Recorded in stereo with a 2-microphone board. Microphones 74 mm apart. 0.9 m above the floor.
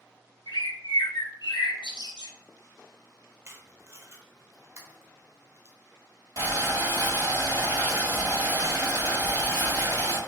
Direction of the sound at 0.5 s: 70° left (ahead or behind).